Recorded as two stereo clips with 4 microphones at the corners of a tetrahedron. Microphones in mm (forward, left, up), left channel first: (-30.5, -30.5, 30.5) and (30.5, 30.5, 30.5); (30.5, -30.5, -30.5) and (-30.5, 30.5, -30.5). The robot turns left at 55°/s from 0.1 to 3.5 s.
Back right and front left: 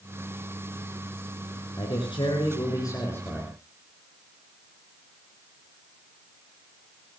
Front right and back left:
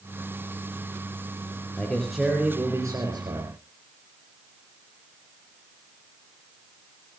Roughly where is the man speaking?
Behind right.